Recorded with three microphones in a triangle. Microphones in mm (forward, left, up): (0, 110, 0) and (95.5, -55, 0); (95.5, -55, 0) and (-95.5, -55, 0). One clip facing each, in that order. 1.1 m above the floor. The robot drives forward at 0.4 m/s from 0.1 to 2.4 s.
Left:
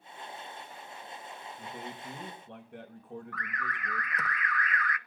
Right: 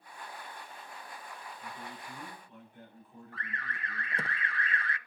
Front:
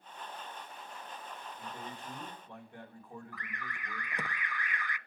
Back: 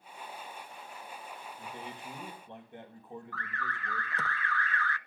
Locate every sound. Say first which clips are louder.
1.6 s a man speaking: left 5 dB, back 1 dB; 105° left, 5 m; by 4.3 s 110° left, 5.5 m
3.3 s an alarm: left 4 dB, back 4 dB; 60° right, 0.8 m